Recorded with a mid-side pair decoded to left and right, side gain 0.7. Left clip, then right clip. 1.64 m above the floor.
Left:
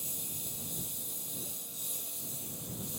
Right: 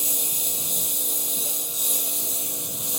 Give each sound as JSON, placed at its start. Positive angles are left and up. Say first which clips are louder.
{"t": 0.0, "sound": "a lawn mower", "louder": "right 14 dB", "azimuth_deg": -55}